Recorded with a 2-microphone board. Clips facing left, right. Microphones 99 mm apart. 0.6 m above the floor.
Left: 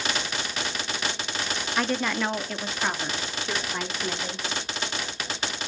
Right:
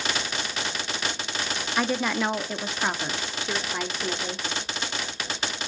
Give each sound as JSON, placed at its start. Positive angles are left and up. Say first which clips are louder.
{"t": 1.8, "sound": "a woman speaking", "louder": "right 1 dB", "side_deg": -5, "distance_m": 0.7}